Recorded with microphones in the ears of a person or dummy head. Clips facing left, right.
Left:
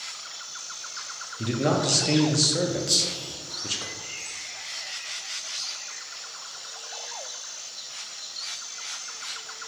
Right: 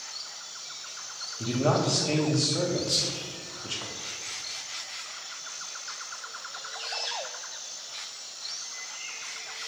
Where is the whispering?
60° left (ahead or behind), 1.1 m.